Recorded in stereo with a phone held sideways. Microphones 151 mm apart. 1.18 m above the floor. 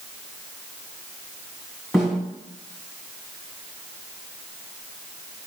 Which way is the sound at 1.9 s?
Centre (ahead or behind).